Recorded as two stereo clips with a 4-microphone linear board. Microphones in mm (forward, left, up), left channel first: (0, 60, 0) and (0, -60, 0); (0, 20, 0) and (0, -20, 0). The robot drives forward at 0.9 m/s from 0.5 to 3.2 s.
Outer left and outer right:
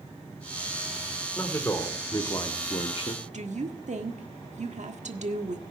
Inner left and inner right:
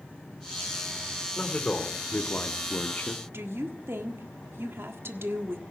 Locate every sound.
1.4 s a man speaking: 20° left (ahead or behind), 2.5 m; by 3.2 s 55° left (ahead or behind), 1.0 m
3.3 s a woman speaking: 75° right (ahead or behind), 1.5 m